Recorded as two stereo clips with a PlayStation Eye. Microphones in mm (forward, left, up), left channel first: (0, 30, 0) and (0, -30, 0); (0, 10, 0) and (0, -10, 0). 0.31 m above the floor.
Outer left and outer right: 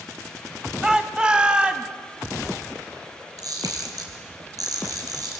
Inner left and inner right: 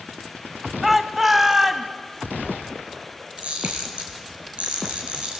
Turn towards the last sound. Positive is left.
turn(degrees=-75)  # may be behind; listen again after turning